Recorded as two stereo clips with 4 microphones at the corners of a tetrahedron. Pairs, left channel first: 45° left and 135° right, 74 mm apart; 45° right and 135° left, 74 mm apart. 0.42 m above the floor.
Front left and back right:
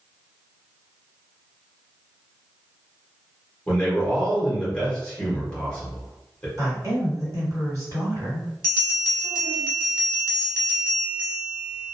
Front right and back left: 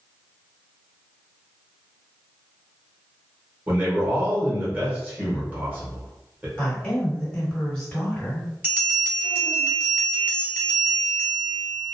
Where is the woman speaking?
125° right, 1.9 m.